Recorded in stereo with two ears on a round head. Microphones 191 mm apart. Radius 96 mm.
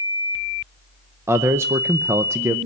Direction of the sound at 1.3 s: 10° right (ahead or behind).